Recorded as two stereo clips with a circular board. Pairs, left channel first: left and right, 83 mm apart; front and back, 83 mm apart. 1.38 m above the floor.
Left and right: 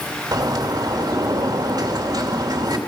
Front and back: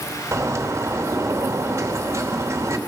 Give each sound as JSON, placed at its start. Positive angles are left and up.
{"t": 0.3, "sound": "a bird", "azimuth_deg": -125, "distance_m": 2.5}